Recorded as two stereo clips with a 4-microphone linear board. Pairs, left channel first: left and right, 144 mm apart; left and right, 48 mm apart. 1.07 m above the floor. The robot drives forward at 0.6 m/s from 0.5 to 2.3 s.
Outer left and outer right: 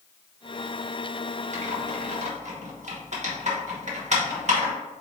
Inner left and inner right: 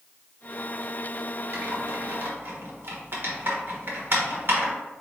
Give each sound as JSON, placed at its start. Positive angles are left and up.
{"t": 1.5, "sound": "typing on a keyboard", "side_deg": -60, "distance_m": 1.0}